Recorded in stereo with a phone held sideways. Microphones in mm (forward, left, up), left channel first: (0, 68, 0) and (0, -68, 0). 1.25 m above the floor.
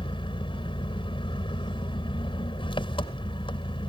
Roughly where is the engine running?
Left.